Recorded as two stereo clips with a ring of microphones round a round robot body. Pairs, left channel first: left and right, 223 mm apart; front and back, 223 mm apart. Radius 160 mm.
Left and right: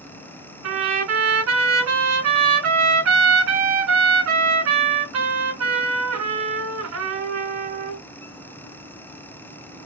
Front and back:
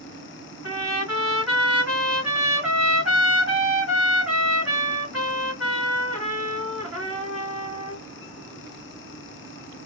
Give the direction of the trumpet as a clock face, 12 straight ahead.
3 o'clock.